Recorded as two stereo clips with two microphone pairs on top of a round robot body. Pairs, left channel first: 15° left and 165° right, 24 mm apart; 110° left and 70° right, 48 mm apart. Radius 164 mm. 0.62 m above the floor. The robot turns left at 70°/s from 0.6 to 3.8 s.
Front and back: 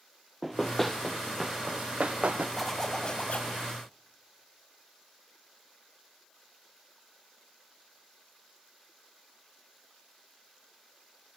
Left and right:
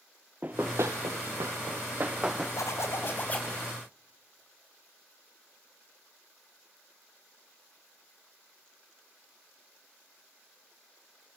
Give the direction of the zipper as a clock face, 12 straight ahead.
9 o'clock.